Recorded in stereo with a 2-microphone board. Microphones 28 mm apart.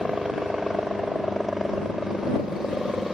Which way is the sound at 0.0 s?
15° right (ahead or behind).